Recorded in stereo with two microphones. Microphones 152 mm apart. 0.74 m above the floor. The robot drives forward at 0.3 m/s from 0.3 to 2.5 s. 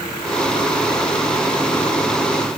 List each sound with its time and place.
Only background noise.